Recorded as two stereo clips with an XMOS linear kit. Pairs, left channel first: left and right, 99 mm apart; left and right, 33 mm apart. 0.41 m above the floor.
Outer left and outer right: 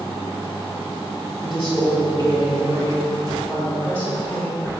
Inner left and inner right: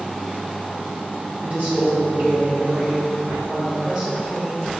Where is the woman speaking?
55° right (ahead or behind), 1.6 m; by 4.7 s 5° right (ahead or behind), 1.5 m.